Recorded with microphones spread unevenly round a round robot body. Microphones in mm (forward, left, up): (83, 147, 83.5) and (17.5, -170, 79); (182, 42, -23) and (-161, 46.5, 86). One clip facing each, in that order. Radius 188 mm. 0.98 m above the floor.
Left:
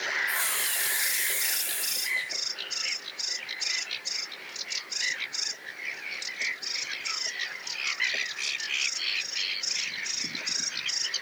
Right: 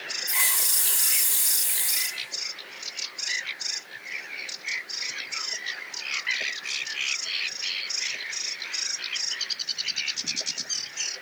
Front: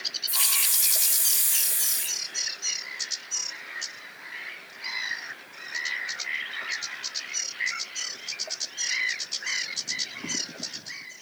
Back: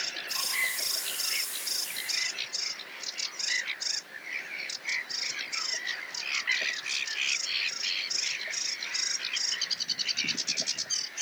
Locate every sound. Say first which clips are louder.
0.3 s a hiss: left 1 dB, back 1 dB; 45° right, 2 m